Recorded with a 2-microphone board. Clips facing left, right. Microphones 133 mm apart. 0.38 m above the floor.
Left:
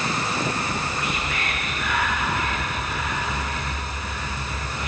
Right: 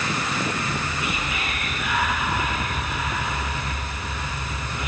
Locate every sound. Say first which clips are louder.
0.6 s whispering: left 1 dB; 5° right (ahead or behind), 7 m